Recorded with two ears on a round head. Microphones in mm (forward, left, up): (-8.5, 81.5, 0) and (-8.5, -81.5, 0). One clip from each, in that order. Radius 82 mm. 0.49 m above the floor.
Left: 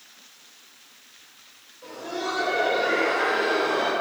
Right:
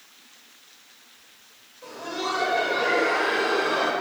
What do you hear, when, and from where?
1.8 s laughter: 30° right (ahead or behind), 2.5 m